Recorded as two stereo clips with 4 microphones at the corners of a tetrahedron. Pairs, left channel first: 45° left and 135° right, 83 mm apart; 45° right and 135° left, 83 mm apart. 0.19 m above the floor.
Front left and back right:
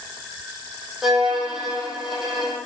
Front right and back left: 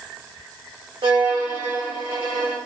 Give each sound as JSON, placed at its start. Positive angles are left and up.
{"t": 1.0, "sound": "a violin", "azimuth_deg": 135, "distance_m": 3.5}